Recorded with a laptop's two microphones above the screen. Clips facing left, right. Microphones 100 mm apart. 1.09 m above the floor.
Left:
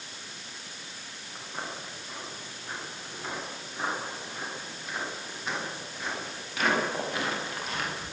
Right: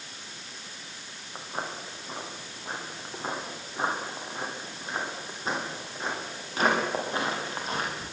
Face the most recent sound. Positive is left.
turn(degrees=-35)  # may be behind; listen again after turning